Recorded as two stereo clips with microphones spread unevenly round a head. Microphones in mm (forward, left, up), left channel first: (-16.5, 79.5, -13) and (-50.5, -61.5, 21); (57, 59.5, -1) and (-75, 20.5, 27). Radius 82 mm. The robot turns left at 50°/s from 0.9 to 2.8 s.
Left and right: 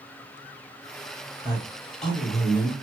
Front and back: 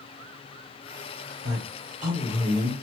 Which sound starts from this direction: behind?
A woman speaking, at 1.4 s.